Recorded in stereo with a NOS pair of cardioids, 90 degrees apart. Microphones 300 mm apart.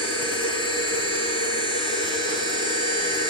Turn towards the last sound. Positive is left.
turn(degrees=15)